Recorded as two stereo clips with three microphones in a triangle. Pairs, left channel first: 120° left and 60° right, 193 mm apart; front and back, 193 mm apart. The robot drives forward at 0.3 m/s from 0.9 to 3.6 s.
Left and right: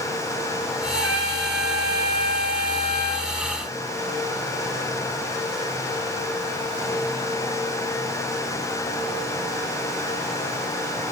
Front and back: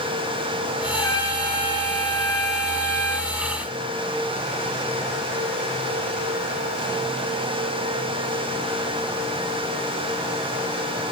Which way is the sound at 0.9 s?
75° right.